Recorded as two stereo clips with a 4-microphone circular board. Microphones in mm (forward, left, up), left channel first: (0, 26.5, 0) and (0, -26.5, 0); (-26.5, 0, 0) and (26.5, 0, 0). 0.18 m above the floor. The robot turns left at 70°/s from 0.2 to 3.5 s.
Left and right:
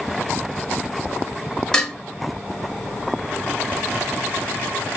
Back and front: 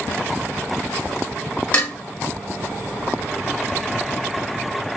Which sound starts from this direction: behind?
Dishes clattering, at 1.7 s.